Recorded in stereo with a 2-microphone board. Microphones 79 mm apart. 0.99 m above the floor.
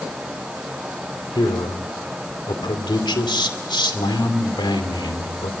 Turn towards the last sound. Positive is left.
turn(degrees=80)